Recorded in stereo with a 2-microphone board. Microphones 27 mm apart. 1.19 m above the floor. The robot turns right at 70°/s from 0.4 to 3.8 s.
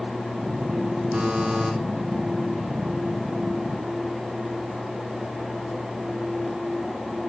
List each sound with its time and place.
1.1 s a buzzer: 50° right, 3.5 m; by 1.7 s 10° right, 3.5 m